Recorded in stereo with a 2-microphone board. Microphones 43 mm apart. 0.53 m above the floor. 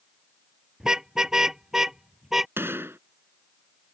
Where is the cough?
No cough in this recording.